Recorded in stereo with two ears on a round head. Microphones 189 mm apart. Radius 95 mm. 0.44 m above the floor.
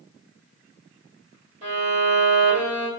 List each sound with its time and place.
1.6 s a violin: 35° right (ahead or behind), 2.0 m